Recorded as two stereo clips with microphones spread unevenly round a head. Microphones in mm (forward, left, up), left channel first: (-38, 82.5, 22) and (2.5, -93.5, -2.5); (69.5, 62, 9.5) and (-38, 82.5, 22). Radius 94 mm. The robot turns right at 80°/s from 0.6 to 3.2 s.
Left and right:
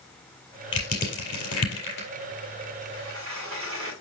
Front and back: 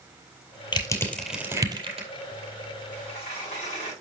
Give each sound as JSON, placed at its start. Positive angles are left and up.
{"t": 0.7, "sound": "crushing", "azimuth_deg": 40, "distance_m": 4.0}
{"t": 2.9, "sound": "a sliding door", "azimuth_deg": -80, "distance_m": 6.0}